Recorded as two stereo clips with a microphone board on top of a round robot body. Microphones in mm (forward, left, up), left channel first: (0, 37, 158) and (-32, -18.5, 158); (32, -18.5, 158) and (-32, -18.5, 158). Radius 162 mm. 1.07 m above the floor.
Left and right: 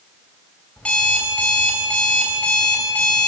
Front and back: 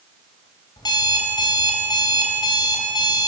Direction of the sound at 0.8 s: 15° right.